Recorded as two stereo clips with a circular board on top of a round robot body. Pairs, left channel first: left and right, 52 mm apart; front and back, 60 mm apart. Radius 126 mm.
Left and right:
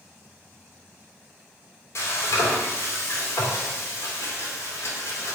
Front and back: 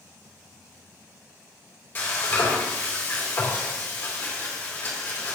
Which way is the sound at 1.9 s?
60° left.